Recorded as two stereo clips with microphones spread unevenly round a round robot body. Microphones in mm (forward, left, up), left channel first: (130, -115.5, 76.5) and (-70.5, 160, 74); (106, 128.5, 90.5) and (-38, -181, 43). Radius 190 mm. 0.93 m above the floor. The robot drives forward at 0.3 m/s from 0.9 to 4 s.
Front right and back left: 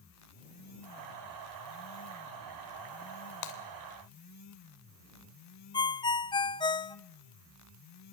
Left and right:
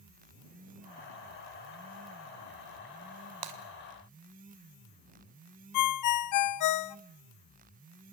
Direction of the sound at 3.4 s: 95° right.